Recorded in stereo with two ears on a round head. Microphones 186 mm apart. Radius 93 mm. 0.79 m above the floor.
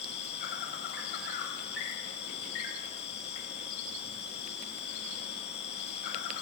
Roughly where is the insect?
Left.